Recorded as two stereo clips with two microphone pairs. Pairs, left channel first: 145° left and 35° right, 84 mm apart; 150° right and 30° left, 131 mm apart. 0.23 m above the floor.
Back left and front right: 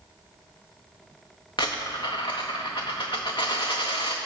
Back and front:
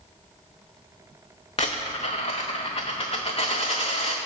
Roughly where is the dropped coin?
Behind.